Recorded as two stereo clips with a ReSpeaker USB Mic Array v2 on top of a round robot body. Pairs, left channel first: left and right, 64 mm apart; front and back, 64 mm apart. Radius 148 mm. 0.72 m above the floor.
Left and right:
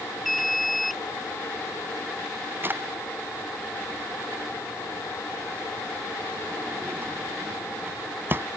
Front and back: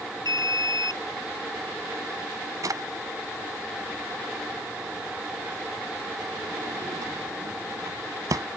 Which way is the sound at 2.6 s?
145° right.